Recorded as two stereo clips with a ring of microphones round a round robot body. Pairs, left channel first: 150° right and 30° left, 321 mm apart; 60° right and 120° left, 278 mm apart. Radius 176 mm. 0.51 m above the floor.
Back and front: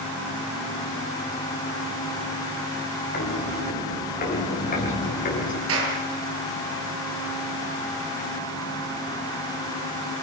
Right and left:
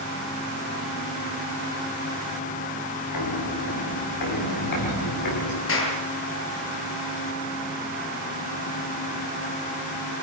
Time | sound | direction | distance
3.1 | footsteps | 85° right | 10 m
5.7 | a clap | 20° right | 8 m